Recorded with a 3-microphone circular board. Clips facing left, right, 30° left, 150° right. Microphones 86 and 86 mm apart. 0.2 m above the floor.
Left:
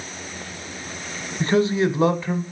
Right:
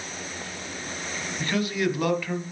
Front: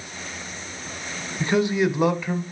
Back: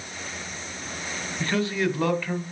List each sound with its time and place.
1.4 s a man speaking: 85° left, 1.0 m